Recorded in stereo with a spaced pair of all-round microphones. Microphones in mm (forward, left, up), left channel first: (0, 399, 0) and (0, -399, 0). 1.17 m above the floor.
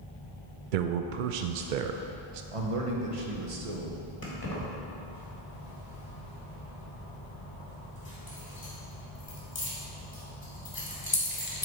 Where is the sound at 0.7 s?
80° right, 0.5 m.